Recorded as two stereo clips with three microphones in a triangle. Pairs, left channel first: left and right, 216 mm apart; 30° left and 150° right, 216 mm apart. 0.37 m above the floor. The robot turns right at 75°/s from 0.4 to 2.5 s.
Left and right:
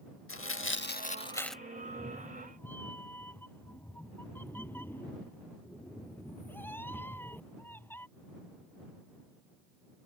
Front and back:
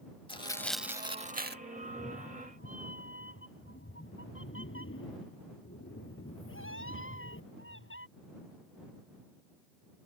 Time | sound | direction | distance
0.3 | tearing paper | 95° left | ?
1.8 | a cat meowing | 45° right | ?